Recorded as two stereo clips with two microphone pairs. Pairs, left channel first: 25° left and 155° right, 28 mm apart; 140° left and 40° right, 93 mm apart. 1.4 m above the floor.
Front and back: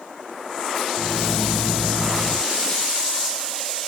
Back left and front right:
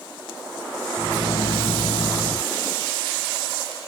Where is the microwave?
145° left.